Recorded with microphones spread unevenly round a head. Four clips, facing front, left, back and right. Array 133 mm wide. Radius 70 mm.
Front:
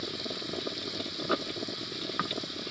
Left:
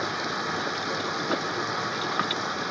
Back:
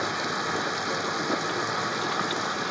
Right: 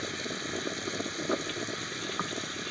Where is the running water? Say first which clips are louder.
Left 7 dB, back 9 dB; 145° left.